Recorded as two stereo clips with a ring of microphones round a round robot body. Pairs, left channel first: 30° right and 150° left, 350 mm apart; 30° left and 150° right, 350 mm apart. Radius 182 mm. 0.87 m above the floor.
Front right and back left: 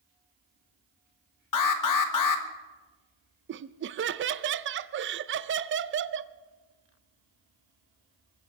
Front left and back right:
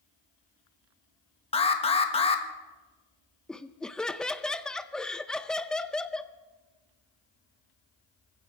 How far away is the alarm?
About 1.4 m.